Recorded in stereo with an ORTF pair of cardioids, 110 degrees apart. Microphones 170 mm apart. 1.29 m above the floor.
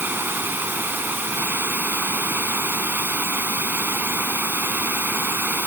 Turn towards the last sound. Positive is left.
turn(degrees=-10)